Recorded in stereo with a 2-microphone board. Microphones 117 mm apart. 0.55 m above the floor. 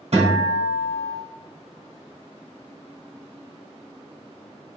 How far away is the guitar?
About 1.2 m.